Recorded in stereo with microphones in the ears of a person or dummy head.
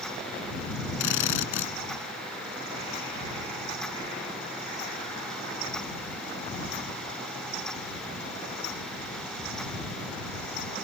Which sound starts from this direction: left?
A drill, at 1.0 s.